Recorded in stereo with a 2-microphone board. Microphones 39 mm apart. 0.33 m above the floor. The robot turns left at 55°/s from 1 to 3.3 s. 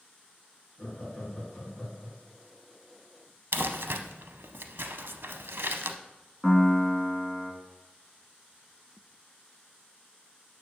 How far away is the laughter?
About 2.5 m.